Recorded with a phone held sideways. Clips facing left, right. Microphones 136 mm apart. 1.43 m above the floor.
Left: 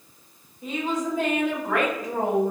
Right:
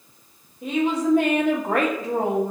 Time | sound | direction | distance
0.6 | a woman speaking | 70° right (ahead or behind) | 0.8 m